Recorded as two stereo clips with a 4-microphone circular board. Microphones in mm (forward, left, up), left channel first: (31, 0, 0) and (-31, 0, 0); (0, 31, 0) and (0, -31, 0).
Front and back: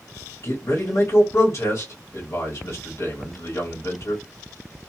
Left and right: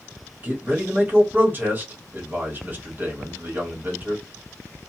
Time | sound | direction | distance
0.4 | a man speaking | 35° right | 1.5 m